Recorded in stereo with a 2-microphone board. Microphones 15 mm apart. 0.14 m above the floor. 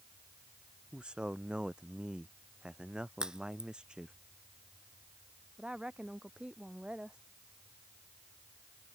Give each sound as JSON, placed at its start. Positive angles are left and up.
{"t": 0.9, "sound": "a man speaking", "side_deg": -75}
{"t": 3.2, "sound": "a crack", "side_deg": -55}
{"t": 5.6, "sound": "a woman speaking", "side_deg": -75}